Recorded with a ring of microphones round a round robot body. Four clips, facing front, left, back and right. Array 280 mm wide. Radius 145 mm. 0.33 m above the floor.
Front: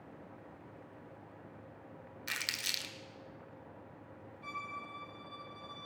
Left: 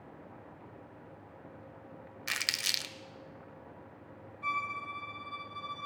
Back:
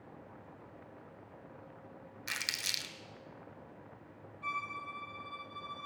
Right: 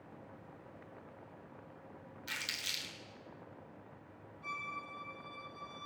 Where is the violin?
110° left, 1.3 m.